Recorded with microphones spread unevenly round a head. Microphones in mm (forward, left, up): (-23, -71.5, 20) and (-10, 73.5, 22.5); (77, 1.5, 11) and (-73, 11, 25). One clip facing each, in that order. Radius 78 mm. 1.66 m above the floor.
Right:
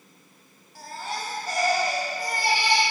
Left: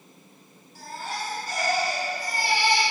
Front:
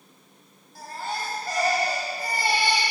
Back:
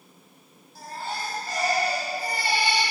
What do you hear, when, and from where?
0.8 s a baby crying: 55° right, 2.5 m